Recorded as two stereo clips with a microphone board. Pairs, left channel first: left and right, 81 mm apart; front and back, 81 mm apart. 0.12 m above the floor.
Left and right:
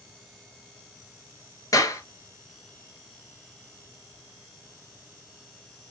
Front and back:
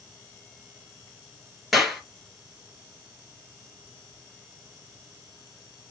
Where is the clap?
90° left, 1.5 m.